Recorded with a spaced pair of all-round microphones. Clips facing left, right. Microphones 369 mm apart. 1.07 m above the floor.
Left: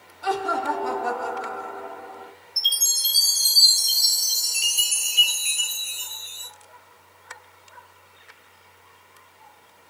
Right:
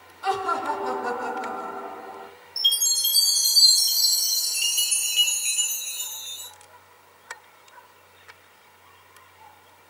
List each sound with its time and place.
0.2 s laughter: 5° right (ahead or behind), 1.5 m; by 2.3 s 60° right (ahead or behind), 1.0 m
2.6 s a chime: 45° right (ahead or behind), 0.9 m